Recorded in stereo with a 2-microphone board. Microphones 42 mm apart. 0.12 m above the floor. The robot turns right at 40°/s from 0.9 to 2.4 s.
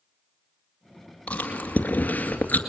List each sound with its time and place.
1.3 s chewing: 30° left (ahead or behind), 2 m; by 2.6 s 45° left (ahead or behind), 2 m